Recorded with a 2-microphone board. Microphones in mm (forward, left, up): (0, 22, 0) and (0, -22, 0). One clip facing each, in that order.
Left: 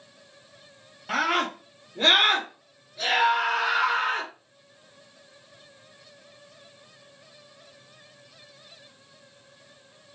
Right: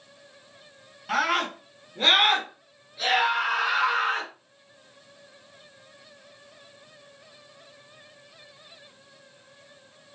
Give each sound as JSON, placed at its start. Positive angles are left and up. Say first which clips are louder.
{"t": 1.1, "sound": "a scream", "louder": "even", "side_deg": 0, "distance_m": 1.3}